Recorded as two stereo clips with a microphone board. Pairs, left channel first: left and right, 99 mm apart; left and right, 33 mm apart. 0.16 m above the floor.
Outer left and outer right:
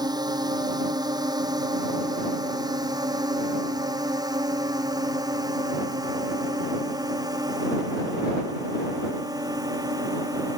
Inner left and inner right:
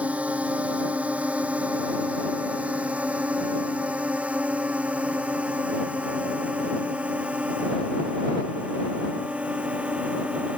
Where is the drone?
40° right (ahead or behind).